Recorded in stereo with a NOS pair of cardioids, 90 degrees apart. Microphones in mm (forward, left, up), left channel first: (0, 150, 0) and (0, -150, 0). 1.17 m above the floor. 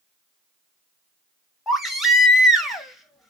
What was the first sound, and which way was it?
A baby crying, straight ahead.